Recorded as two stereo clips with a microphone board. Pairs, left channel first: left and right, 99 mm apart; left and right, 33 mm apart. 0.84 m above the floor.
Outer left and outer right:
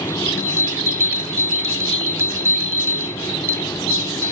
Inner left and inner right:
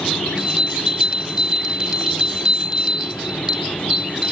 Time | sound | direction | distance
0.4 | a bell | 25° right (ahead or behind) | ?